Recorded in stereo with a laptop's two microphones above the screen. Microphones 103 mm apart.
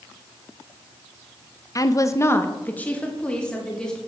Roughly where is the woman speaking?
Left.